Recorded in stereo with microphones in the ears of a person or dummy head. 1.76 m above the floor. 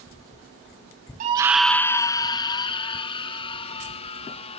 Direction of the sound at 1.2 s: 40° right (ahead or behind).